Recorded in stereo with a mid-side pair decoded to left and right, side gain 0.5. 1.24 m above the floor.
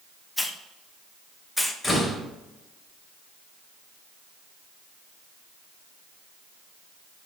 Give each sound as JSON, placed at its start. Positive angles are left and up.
{"t": 0.4, "sound": "a hiss", "azimuth_deg": 10, "distance_m": 1.6}
{"t": 1.8, "sound": "a door slam", "azimuth_deg": 20, "distance_m": 4.0}